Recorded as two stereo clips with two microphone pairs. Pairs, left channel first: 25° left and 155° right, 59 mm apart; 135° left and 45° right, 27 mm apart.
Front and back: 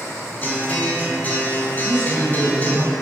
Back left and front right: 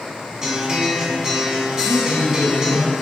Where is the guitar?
5° right, 0.8 m.